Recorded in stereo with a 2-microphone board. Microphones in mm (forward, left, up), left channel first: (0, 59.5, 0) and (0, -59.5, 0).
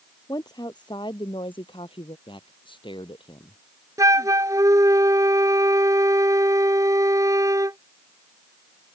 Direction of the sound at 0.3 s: 35° left (ahead or behind).